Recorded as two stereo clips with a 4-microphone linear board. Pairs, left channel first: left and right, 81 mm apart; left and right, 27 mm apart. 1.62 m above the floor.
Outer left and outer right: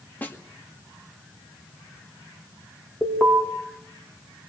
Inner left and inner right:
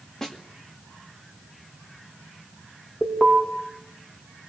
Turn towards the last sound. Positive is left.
turn(degrees=20)  # may be behind; listen again after turning